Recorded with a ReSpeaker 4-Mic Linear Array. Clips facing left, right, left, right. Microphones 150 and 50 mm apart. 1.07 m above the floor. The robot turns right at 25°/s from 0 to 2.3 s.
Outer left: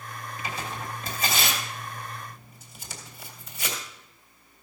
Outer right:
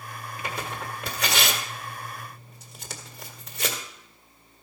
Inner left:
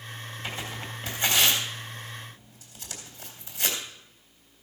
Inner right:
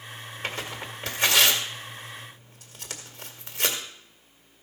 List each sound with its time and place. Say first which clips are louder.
0.4 s tearing paper: outer right 2 dB, inner right 3 dB; 55° right (ahead or behind), 1.8 m; by 3.8 s 70° right (ahead or behind), 1.8 m